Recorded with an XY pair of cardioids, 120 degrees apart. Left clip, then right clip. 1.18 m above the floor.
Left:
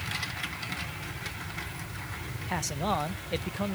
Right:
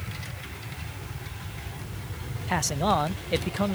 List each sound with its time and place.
0.0 s a fan: 25° right
2.5 s a man speaking: 30° right